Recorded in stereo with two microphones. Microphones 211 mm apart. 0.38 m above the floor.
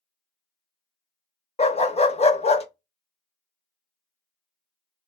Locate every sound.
1.6 s a dog barking: 30° left (ahead or behind), 0.5 m